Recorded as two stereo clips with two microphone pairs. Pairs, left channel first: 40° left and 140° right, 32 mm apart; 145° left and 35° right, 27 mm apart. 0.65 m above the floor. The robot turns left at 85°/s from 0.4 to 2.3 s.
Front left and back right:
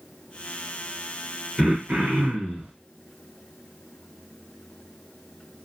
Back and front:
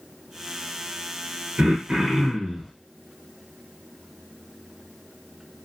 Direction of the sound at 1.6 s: 60° right.